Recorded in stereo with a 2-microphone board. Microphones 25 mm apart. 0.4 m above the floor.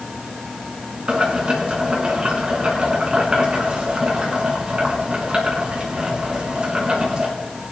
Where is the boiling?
35° right (ahead or behind), 3 m.